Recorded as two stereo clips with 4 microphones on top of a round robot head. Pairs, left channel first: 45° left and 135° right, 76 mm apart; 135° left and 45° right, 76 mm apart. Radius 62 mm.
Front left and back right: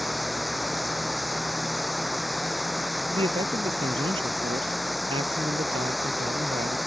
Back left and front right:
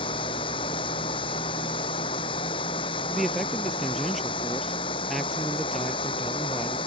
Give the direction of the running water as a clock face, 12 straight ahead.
7 o'clock.